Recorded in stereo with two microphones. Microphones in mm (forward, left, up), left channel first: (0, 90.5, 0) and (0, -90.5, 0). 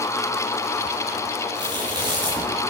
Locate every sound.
1.6 s chewing: 25° right (ahead or behind), 4 m